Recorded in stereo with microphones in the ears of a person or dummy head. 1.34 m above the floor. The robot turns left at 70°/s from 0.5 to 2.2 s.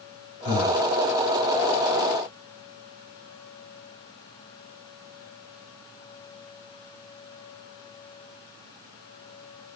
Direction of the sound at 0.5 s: 30° left (ahead or behind).